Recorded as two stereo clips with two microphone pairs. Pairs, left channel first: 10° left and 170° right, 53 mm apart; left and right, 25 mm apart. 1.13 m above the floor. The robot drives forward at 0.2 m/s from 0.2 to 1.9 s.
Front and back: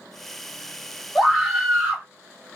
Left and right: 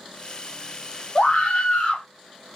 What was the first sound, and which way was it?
A scream, 115° left.